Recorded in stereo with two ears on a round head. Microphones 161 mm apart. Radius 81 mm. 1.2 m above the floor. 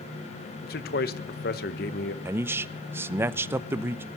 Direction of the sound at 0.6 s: 55° left (ahead or behind).